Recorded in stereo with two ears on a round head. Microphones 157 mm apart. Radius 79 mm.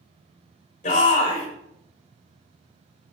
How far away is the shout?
About 4 m.